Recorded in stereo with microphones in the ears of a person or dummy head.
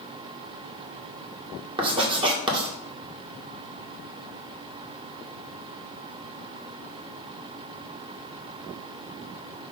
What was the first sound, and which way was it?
Writing, 30° right (ahead or behind).